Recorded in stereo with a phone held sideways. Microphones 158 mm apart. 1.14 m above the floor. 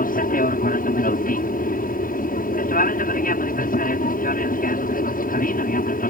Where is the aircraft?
65° left (ahead or behind).